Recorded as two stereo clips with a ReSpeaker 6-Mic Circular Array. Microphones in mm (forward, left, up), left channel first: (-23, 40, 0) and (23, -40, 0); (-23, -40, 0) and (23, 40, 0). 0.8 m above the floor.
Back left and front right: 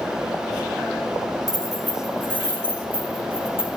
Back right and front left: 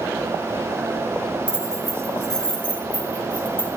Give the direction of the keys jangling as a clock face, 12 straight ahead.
1 o'clock.